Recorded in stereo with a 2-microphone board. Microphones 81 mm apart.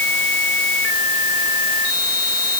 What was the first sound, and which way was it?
Only background noise.